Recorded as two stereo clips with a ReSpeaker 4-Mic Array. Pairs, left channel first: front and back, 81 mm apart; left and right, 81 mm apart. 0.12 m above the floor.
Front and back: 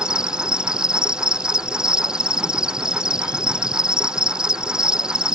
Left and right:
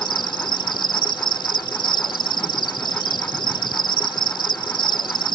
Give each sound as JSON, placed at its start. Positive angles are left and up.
{"t": 0.0, "sound": "an insect", "azimuth_deg": 100}